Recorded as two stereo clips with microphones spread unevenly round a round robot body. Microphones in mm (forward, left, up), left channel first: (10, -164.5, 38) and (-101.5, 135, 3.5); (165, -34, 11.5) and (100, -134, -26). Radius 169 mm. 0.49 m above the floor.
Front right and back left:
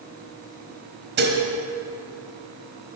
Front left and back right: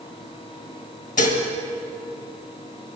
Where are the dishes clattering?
50° left, 1.7 m.